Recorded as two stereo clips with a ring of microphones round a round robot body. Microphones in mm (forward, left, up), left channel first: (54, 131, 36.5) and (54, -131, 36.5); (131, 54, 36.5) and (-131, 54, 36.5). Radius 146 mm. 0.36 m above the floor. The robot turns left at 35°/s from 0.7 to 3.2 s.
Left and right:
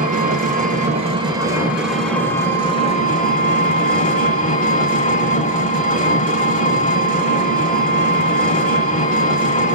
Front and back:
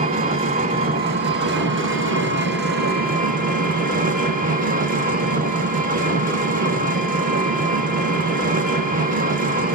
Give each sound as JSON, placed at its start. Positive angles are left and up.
{"t": 0.0, "sound": "an engine running", "azimuth_deg": -135, "distance_m": 0.9}